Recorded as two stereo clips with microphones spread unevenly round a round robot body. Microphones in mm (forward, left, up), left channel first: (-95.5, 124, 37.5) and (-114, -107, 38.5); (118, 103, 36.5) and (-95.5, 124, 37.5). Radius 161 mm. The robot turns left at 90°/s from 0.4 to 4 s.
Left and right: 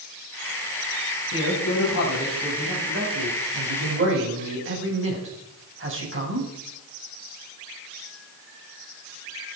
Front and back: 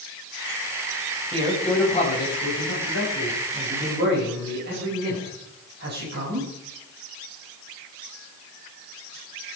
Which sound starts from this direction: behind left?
A man speaking, at 1.3 s.